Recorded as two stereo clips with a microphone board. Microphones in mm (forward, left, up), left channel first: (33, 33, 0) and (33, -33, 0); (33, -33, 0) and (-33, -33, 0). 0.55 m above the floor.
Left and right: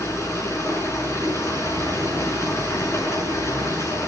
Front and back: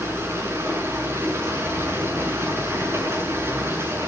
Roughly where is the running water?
Behind left.